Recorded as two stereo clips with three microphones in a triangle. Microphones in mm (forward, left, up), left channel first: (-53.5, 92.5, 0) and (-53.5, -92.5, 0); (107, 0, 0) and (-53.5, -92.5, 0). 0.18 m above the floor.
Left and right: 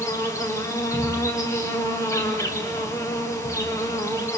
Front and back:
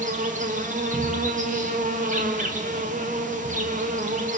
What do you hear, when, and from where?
0.0 s an insect: 165° left, 3 m